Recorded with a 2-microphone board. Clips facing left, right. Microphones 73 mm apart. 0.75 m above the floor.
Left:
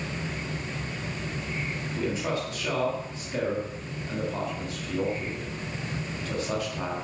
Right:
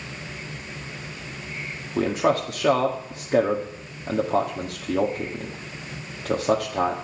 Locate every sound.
2.0 s a man speaking: 55° right (ahead or behind), 1.5 m